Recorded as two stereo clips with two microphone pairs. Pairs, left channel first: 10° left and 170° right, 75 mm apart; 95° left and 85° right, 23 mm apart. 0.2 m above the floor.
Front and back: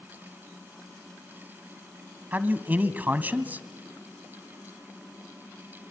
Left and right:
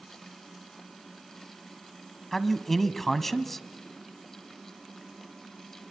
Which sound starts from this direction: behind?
A man speaking, at 2.3 s.